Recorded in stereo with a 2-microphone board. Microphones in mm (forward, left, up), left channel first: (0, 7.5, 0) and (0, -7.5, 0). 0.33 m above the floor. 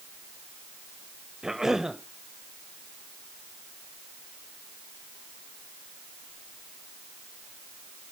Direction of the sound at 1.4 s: 35° right (ahead or behind).